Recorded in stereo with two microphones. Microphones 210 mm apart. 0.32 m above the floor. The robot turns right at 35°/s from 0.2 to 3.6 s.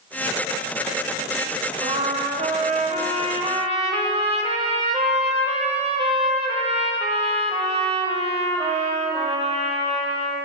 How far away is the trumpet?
About 0.8 m.